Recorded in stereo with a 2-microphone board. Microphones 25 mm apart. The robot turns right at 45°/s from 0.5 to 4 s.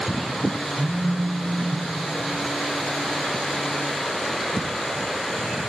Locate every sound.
0.8 s a phone buzzing: 130° left, 8 m; by 1.9 s straight behind, 8 m